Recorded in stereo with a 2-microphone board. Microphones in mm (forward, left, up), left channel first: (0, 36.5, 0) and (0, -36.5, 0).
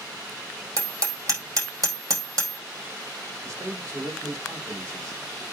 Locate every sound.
0.8 s hammering: 50° right (ahead or behind), 4 m
3.4 s a man speaking: 45° right (ahead or behind), 5 m